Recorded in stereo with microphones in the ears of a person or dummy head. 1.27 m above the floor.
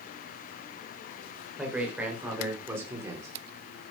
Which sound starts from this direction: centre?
A man speaking, at 1.6 s.